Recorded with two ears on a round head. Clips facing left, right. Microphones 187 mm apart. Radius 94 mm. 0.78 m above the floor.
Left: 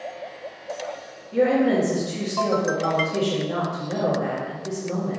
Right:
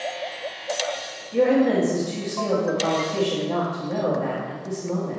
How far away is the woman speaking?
About 1.5 m.